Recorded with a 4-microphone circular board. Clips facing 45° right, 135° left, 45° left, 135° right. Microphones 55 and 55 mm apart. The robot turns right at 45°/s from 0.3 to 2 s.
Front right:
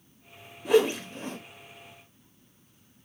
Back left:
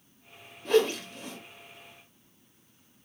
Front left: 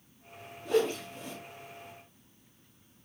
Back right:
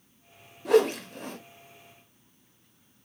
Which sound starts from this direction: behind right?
A whoosh, at 0.7 s.